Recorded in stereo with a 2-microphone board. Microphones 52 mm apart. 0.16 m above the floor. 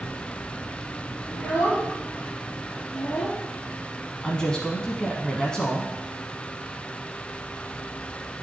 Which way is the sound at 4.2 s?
15° left (ahead or behind).